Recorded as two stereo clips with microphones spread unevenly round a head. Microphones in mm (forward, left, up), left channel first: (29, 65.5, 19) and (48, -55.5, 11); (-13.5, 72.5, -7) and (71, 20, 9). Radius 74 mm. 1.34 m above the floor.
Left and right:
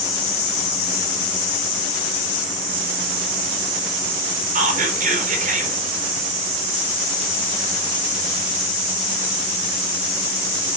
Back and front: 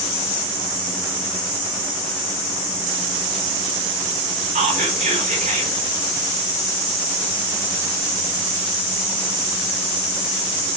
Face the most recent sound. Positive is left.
turn(degrees=-65)